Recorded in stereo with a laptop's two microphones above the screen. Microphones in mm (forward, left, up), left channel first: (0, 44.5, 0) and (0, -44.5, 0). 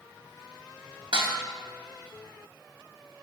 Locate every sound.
1.1 s dishes clattering: 65° right (ahead or behind), 0.9 m